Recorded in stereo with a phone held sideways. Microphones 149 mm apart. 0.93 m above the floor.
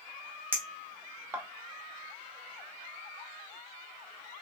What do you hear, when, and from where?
0.5 s a clink: 15° right (ahead or behind), 1.0 m